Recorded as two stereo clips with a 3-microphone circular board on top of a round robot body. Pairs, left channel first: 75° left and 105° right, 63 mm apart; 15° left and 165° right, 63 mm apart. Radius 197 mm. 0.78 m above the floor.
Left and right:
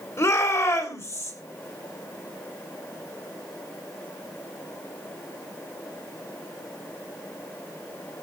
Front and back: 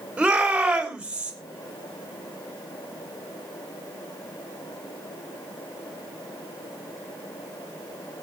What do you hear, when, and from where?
0.2 s a shout: 120° left, 3.5 m